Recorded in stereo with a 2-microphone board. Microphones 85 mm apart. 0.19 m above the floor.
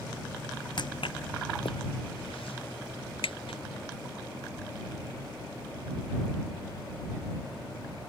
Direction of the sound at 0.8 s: 55° left (ahead or behind).